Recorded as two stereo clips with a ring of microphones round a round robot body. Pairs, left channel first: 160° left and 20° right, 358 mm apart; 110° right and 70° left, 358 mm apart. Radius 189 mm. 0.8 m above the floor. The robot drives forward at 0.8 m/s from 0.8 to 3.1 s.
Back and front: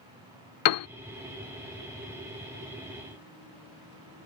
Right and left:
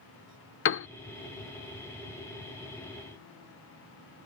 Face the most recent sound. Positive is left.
turn(degrees=-175)